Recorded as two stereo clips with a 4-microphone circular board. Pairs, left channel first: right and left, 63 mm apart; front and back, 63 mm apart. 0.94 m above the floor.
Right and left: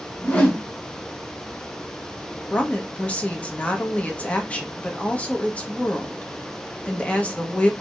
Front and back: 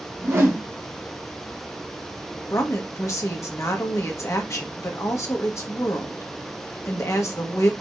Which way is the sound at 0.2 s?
150° right.